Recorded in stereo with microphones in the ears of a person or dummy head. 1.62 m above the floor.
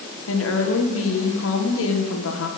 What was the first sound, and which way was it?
A woman speaking, 85° left.